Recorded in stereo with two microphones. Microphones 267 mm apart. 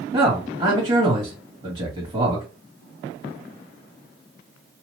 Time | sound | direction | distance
0.1 | a man speaking | 25° right (ahead or behind) | 1.3 m